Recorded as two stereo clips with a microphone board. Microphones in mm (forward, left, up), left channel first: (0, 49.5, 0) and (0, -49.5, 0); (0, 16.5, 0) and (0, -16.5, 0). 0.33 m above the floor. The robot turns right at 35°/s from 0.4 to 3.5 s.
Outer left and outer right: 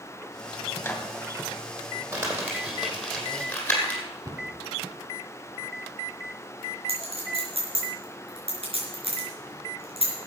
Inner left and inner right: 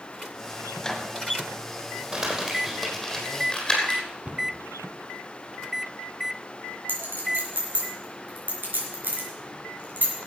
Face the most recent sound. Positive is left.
turn(degrees=-75)  # may be behind; listen again after turning